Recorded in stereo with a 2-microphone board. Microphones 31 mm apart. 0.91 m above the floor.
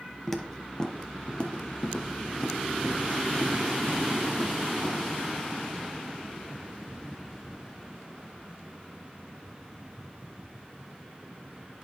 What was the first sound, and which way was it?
Footsteps, 5° left (ahead or behind).